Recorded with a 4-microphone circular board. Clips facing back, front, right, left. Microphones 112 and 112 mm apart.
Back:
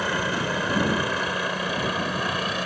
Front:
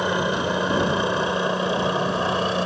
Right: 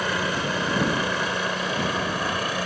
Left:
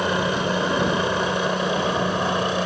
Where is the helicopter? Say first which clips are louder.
Front 4 dB, left 4 dB; 50° left; by 2.7 s 40° left.